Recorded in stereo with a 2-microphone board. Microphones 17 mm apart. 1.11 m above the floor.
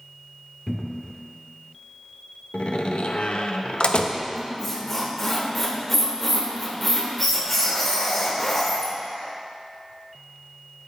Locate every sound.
0.7 s a cupboard door: 20° left (ahead or behind), 0.9 m
2.5 s a door slam: 85° left, 0.7 m
4.3 s a squeak: 15° left (ahead or behind), 1.6 m